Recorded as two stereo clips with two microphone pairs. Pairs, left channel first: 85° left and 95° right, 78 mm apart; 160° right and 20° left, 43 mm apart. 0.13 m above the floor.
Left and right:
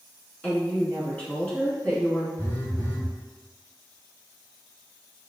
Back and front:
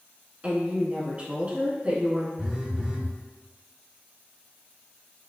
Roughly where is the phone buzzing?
Left.